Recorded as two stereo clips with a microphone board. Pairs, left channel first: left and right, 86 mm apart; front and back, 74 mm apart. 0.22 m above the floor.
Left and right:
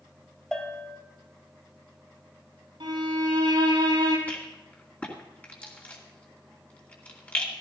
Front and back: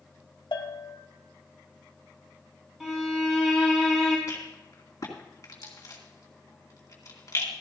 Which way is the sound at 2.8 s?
95° right.